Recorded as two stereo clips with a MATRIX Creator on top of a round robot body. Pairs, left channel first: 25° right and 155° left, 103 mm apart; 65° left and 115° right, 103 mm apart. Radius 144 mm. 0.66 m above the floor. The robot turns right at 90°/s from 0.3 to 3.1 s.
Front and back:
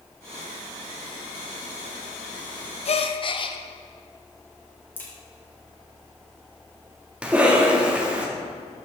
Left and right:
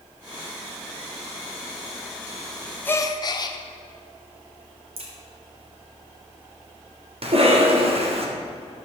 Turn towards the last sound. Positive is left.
turn(degrees=-125)